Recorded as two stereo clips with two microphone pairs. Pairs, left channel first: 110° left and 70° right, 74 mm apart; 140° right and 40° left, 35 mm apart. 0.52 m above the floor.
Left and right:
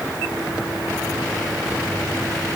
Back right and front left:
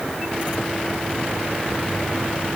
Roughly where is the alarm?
No alarm in this recording.